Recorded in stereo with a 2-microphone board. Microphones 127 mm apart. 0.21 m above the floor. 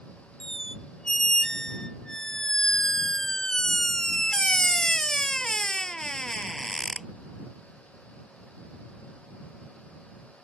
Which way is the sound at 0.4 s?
5° left (ahead or behind).